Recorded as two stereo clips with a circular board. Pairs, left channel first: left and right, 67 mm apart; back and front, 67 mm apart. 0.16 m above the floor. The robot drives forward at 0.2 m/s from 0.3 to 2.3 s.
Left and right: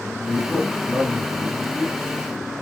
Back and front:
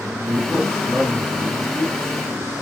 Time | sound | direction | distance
0.2 | a man speaking | 30° left | 1.9 m